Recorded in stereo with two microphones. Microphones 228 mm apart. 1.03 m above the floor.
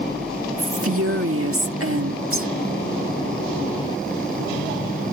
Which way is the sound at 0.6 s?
70° right (ahead or behind).